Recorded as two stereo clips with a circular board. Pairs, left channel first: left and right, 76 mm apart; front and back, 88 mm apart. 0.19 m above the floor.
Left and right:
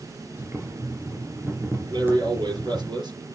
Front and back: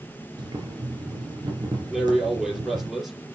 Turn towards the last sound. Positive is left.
turn(degrees=-90)